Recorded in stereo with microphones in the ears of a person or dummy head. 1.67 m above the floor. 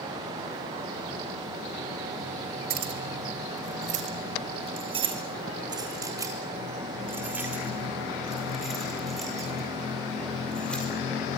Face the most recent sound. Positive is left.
turn(degrees=10)  # may be behind; listen again after turning